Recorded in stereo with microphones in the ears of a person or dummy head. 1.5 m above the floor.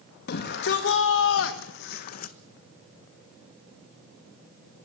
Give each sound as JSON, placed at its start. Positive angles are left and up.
{"t": 0.3, "sound": "a shout", "side_deg": 65, "distance_m": 1.7}